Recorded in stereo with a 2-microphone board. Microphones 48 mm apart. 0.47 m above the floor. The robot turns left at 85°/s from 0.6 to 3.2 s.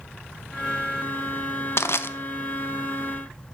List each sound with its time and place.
1.8 s crushing: 60° left (ahead or behind), 0.5 m; by 2.1 s 55° left (ahead or behind), 0.5 m